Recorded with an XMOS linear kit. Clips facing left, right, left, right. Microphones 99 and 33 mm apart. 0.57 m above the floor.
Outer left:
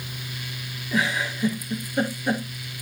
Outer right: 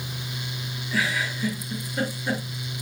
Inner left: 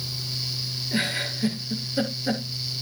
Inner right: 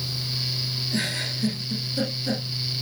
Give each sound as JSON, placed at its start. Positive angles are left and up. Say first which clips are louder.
{"t": 0.9, "sound": "a giggle", "louder": "outer left 2 dB, inner left 3 dB", "side_deg": 20, "distance_m": 6.5}